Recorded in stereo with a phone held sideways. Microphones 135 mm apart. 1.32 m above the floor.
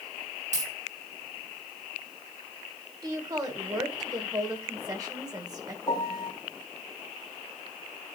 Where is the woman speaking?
25° right (ahead or behind), 1.6 m.